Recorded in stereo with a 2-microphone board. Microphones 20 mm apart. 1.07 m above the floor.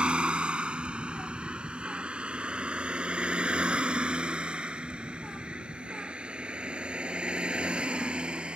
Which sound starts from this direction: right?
A vehicle, at 0.0 s.